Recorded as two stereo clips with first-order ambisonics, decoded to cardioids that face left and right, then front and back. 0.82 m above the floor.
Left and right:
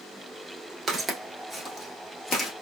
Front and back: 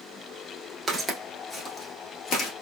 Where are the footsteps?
130° right, 0.8 m; by 2.5 s 30° left, 1.0 m.